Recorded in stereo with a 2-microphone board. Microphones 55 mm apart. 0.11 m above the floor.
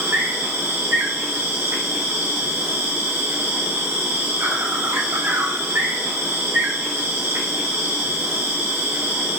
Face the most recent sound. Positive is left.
turn(degrees=-60)  # may be behind; listen again after turning